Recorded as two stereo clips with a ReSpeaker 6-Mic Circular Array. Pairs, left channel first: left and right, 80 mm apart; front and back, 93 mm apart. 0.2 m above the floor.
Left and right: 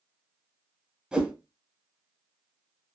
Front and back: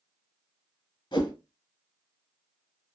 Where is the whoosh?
15° right, 0.9 m.